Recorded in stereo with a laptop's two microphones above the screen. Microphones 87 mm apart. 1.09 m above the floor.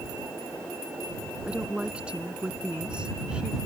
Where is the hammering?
I don't hear hammering.